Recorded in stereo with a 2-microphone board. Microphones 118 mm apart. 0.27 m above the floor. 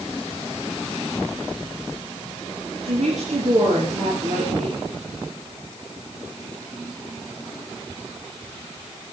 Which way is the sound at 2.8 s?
80° right.